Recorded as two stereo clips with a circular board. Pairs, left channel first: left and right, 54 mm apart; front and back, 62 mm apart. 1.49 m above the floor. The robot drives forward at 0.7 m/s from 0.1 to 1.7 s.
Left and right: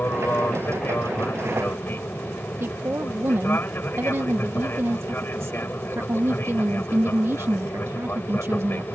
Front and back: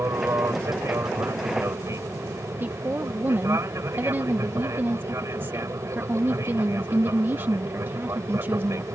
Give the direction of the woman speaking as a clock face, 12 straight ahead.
4 o'clock.